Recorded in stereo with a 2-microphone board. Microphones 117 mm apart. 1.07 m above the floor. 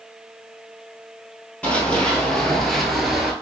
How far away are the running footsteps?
About 1.4 m.